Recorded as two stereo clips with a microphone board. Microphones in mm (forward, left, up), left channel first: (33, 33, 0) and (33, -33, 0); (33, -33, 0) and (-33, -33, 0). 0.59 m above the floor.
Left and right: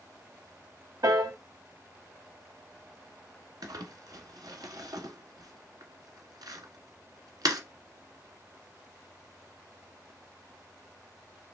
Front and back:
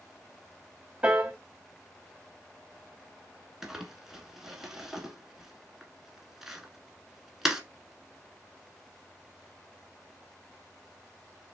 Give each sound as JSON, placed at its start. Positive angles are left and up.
{"t": 1.0, "sound": "a piano", "azimuth_deg": -110, "distance_m": 0.9}
{"t": 3.6, "sound": "crumpling", "azimuth_deg": -100, "distance_m": 1.1}